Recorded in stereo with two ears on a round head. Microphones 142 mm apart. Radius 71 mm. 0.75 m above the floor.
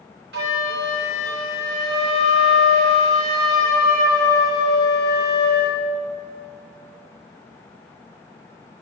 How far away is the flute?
About 3 m.